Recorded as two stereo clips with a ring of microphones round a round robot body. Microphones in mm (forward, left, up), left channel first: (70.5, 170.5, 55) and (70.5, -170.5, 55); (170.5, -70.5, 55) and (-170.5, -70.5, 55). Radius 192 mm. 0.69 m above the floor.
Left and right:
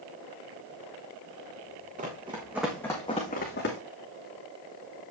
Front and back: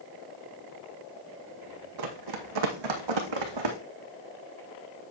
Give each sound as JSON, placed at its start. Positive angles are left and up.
{"t": 2.0, "sound": "running footsteps", "azimuth_deg": -160, "distance_m": 1.8}